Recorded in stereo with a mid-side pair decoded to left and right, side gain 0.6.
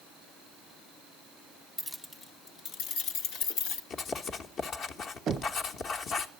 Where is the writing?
50° left, 1.1 m.